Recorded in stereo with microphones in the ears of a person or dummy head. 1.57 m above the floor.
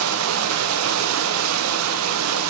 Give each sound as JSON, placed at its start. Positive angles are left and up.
{"t": 0.0, "sound": "running water", "side_deg": -75, "distance_m": 0.8}